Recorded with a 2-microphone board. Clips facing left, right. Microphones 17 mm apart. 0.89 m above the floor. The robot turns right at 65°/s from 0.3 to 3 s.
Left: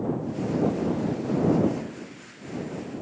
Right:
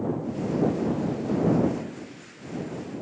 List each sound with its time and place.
Only background noise.